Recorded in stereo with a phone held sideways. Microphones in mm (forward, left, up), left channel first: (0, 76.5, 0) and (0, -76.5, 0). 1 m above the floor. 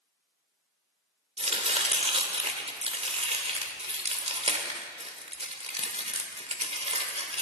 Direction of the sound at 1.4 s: 40° right (ahead or behind).